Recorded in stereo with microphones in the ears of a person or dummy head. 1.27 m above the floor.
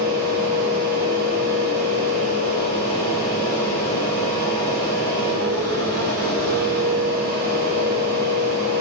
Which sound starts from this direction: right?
A fan, at 0.0 s.